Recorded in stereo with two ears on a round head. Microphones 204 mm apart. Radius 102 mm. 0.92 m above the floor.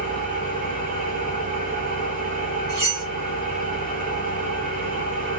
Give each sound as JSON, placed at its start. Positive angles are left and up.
{"t": 0.0, "sound": "an engine running", "side_deg": -35, "distance_m": 1.3}
{"t": 2.7, "sound": "cutlery clinking", "side_deg": -65, "distance_m": 1.9}